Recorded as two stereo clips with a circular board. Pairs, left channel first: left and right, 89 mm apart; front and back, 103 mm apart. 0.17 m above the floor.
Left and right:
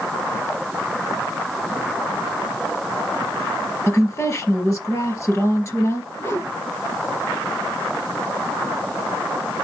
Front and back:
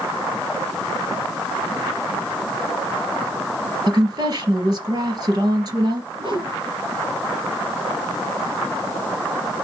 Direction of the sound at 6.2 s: 140° left.